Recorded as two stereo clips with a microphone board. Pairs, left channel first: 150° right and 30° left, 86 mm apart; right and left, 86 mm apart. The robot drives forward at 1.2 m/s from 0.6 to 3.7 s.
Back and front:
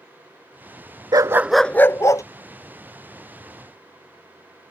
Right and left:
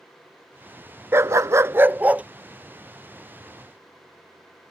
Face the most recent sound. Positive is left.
turn(degrees=175)